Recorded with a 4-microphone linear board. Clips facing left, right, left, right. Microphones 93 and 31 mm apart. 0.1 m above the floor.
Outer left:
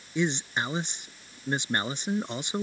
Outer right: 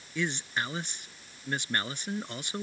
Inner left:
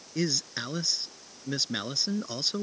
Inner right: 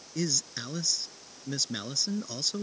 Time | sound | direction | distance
0.1 | a man speaking | 20° left (ahead or behind) | ?